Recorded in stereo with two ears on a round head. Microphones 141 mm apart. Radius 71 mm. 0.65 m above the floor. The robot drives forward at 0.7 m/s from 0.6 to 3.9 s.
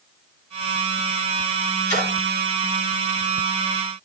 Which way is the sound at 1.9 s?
25° left (ahead or behind).